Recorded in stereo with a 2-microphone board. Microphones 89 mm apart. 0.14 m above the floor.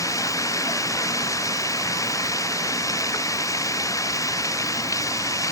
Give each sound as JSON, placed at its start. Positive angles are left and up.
{"t": 0.0, "sound": "running water", "side_deg": 35}